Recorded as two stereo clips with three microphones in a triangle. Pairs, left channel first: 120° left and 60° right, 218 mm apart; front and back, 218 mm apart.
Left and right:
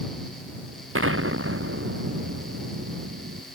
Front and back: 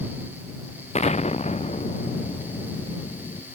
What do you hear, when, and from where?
0.9 s an explosion: 60° right